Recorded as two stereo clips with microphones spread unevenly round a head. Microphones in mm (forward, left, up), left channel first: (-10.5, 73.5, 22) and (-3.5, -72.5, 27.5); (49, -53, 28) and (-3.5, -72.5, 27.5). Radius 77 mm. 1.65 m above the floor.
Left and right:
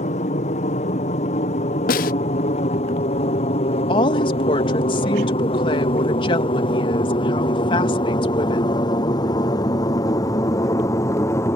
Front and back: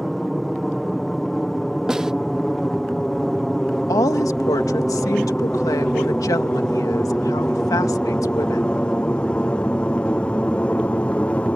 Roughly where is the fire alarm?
I don't hear a fire alarm.